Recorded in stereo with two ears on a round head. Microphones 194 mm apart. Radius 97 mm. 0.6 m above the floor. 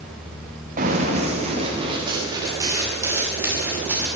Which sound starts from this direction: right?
Running footsteps, at 0.8 s.